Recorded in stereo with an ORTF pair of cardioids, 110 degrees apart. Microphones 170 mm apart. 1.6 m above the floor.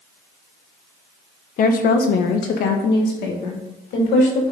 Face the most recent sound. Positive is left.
turn(degrees=75)